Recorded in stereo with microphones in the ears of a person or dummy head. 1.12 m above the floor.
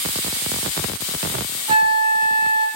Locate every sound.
1.7 s a flute: 40° right (ahead or behind), 1.4 m